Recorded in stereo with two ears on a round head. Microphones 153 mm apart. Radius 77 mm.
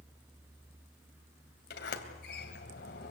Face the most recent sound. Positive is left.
turn(degrees=65)  # may be behind; listen again after turning